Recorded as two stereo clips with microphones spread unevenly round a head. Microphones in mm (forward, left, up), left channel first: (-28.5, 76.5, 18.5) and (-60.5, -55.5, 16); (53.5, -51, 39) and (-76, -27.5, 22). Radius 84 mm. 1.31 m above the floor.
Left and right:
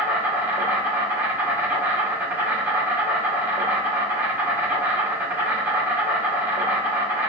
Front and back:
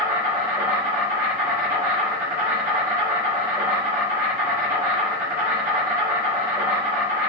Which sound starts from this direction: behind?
An insect, at 0.0 s.